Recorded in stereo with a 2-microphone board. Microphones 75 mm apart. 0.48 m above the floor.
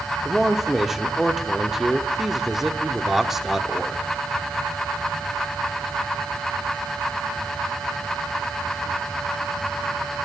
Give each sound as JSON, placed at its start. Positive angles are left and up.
{"t": 0.2, "sound": "a man speaking", "side_deg": -5, "distance_m": 0.9}